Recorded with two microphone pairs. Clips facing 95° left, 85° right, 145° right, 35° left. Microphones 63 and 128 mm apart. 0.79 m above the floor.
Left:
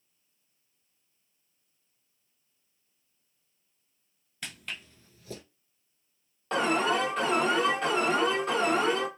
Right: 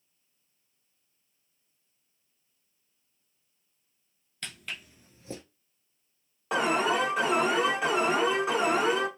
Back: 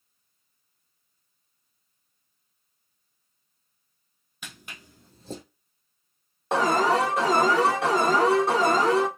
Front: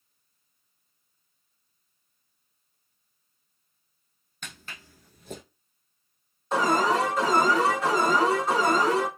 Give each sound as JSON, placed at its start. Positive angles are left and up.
{"t": 4.4, "sound": "footsteps", "azimuth_deg": 160, "distance_m": 0.7}
{"t": 6.5, "sound": "an alarm", "azimuth_deg": -165, "distance_m": 1.0}